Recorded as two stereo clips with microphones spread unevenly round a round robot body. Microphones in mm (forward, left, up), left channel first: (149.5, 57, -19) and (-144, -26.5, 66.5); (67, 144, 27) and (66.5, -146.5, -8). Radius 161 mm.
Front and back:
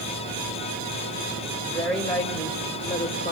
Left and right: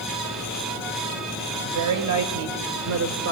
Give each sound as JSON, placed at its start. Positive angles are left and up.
{"t": 1.6, "sound": "a woman speaking", "azimuth_deg": -70, "distance_m": 4.5}